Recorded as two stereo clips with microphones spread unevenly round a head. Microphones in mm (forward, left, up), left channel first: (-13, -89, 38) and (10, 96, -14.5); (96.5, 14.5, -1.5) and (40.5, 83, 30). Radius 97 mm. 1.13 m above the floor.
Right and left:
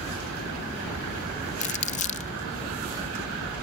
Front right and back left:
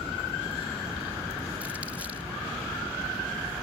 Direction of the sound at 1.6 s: 150° right.